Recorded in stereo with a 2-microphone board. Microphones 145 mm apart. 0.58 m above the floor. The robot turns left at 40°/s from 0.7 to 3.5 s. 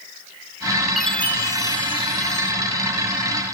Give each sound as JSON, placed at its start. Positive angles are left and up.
{"t": 1.0, "sound": "a chime", "azimuth_deg": 180, "distance_m": 2.0}